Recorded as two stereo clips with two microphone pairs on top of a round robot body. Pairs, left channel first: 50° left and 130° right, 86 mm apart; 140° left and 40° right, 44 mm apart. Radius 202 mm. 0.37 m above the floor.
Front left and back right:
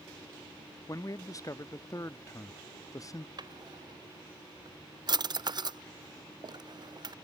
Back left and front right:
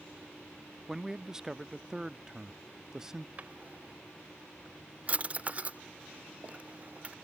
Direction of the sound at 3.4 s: 95° right.